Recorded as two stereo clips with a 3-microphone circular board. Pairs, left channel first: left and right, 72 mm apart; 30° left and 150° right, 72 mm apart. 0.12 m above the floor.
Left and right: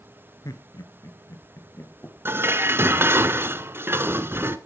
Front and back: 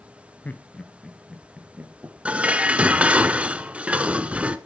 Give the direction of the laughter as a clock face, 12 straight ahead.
9 o'clock.